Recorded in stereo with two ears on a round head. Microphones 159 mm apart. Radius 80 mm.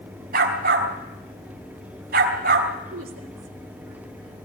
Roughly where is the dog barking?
Right.